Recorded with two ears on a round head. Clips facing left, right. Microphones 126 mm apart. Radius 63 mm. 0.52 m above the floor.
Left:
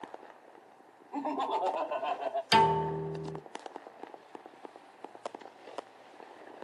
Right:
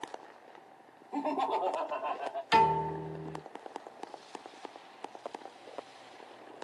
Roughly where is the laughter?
Right.